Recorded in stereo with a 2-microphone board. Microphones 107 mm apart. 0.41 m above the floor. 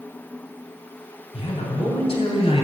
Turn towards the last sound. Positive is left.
turn(degrees=55)  # may be behind; listen again after turning